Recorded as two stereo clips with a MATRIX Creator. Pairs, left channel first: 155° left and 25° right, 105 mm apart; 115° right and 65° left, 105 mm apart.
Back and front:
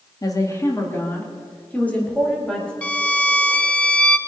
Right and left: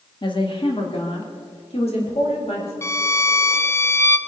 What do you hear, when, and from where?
0.2 s a woman speaking: 150° right, 2 m; by 2.7 s 120° right, 5 m
2.8 s a violin: 135° right, 0.7 m